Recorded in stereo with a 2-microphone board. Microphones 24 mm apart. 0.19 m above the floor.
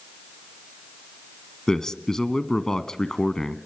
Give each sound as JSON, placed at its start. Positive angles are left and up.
{"t": 1.7, "sound": "a man speaking", "side_deg": 25, "distance_m": 1.2}